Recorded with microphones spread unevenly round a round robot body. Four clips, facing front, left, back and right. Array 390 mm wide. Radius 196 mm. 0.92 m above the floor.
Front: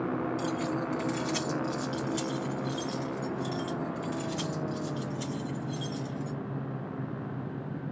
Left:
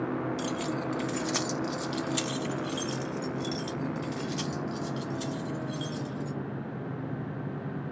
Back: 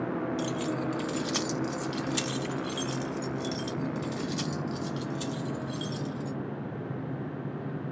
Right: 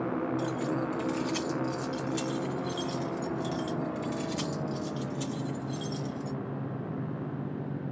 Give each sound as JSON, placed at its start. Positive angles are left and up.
{"t": 0.4, "sound": "keys jangling", "azimuth_deg": 95, "distance_m": 1.7}